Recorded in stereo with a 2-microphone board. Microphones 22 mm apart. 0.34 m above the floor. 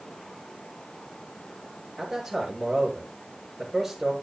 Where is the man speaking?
10° right (ahead or behind), 5.5 m.